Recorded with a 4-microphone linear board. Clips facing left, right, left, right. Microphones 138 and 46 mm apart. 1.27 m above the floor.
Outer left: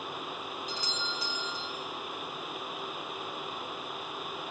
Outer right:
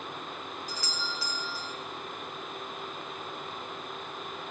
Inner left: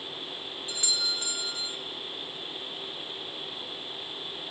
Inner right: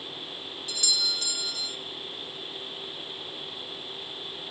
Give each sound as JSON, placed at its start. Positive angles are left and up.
{"t": 0.7, "sound": "a doorbell", "side_deg": 20, "distance_m": 1.0}